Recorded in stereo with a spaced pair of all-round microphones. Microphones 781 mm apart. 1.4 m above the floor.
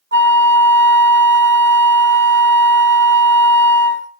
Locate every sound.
0.1 s a flute: 15° right (ahead or behind), 0.6 m